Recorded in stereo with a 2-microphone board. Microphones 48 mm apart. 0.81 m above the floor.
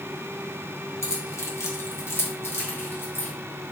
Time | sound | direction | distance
1.0 | keys jangling | 70° left (ahead or behind) | 0.8 m